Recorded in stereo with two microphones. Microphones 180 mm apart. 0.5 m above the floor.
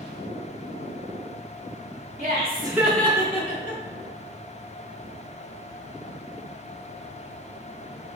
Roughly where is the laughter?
Right.